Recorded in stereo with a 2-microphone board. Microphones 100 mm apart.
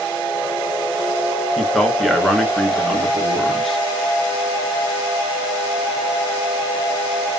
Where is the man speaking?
Centre (ahead or behind), 2.5 m.